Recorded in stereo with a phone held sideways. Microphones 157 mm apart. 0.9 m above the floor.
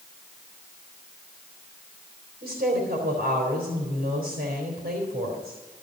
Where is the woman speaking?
80° right, 3 m.